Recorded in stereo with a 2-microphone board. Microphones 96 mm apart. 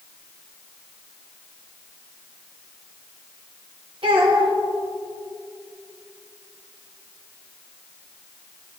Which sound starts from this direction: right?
A child speaking, at 4.0 s.